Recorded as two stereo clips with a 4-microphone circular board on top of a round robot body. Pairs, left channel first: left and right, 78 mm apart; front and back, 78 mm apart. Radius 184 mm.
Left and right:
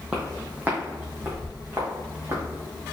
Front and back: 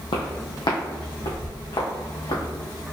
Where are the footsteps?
15° right, 0.9 m; by 2.4 s 35° right, 2 m.